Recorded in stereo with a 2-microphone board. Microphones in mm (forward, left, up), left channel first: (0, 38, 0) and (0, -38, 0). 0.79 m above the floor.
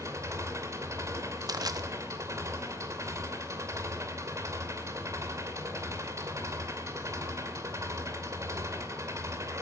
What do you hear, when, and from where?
0.0 s an engine running: 40° right (ahead or behind), 2.5 m
1.5 s crushing: 60° right (ahead or behind), 1.0 m